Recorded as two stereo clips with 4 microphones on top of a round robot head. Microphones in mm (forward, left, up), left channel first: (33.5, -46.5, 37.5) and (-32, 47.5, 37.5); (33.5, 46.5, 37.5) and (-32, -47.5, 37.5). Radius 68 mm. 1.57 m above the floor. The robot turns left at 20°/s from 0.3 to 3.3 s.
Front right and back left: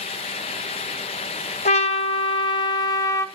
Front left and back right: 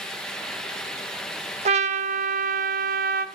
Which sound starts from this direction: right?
A trumpet, at 1.6 s.